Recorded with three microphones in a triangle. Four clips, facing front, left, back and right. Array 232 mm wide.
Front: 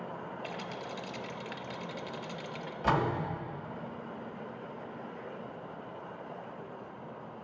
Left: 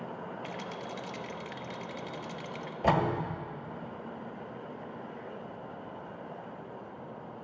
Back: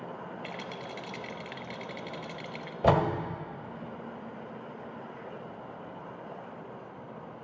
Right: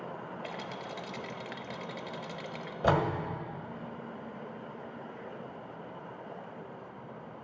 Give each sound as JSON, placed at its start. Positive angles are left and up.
{"t": 0.4, "sound": "a rattle", "azimuth_deg": -105, "distance_m": 0.7}
{"t": 2.8, "sound": "a door slam", "azimuth_deg": -175, "distance_m": 1.5}